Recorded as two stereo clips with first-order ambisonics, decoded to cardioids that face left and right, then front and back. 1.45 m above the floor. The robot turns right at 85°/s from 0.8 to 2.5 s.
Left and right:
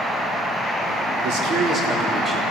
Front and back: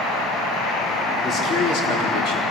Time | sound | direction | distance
1.2 | a man speaking | 70° right | 4 m